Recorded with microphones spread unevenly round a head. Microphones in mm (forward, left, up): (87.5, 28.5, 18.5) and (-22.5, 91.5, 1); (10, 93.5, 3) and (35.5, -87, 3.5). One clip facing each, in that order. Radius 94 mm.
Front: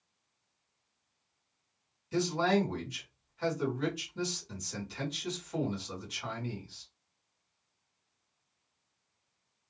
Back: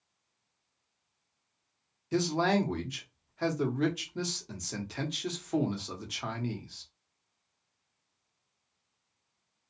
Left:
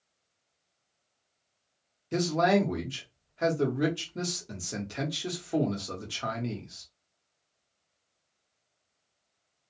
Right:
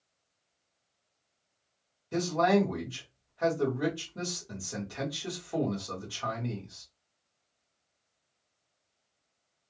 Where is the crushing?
I don't hear crushing.